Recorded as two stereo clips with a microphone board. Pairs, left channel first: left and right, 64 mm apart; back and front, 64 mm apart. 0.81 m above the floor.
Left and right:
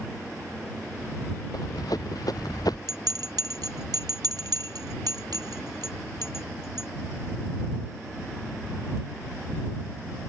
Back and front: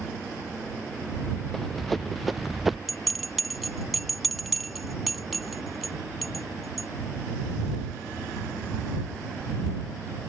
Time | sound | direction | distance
1.5 | running footsteps | 95° left | ?
2.9 | a bell | 90° right | ?